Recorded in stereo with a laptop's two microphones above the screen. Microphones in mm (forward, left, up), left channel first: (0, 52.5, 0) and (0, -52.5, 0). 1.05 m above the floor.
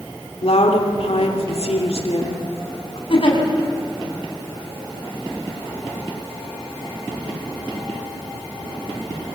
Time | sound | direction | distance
0.4 | a woman speaking | 75° left (ahead or behind) | 3 m
3.1 | a giggle | 60° left (ahead or behind) | 5 m